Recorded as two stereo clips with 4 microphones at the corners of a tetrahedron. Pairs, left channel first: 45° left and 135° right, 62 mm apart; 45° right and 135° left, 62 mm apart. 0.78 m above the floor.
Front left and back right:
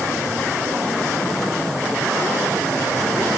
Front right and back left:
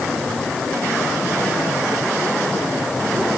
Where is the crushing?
I don't hear crushing.